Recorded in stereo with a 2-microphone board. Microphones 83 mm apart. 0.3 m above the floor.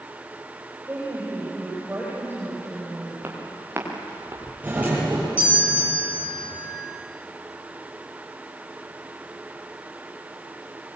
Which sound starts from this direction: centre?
A doorbell, at 4.6 s.